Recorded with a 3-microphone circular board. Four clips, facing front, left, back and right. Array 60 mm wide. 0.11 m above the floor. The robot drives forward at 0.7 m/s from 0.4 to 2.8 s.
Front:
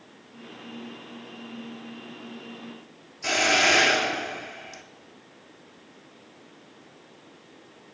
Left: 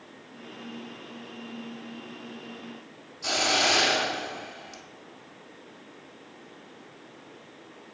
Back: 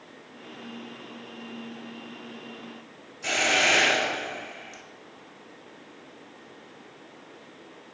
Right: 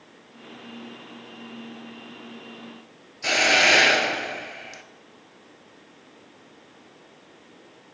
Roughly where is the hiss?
Right.